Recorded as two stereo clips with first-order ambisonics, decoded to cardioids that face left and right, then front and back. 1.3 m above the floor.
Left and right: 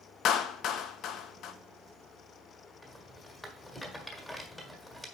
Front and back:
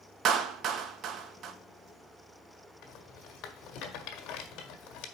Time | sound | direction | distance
0.2 | a clap | 130° left | 0.8 m
2.8 | a rattle | 5° left | 1.5 m